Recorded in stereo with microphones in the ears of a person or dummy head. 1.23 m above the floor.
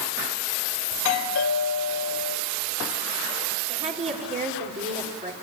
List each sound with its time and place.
0.9 s a doorbell: 80° left, 2.5 m
3.7 s a woman speaking: 25° right (ahead or behind), 4 m